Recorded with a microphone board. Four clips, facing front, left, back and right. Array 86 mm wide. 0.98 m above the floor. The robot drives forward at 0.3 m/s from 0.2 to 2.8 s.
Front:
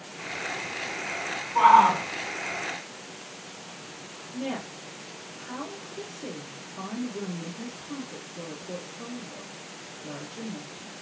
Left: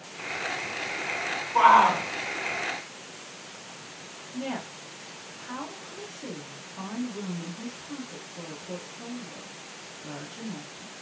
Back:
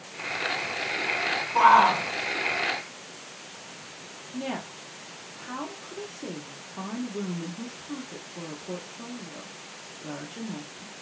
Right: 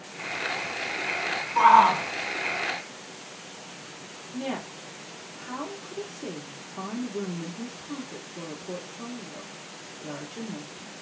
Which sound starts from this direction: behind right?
A woman speaking, at 4.3 s.